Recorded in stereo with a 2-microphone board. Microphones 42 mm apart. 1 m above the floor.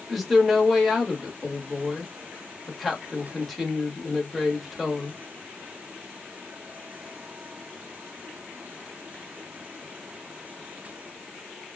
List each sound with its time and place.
0.1 s a woman speaking: centre (ahead or behind), 1.2 m